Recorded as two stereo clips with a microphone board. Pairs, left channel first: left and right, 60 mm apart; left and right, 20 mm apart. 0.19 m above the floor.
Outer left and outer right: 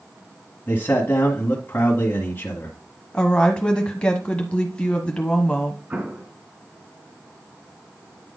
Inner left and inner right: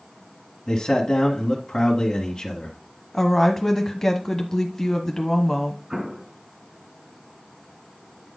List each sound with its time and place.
0.7 s a man speaking: 30° left (ahead or behind), 1.6 m
3.1 s a woman speaking: 20° left (ahead or behind), 1.0 m
5.9 s an explosion: 30° right (ahead or behind), 1.5 m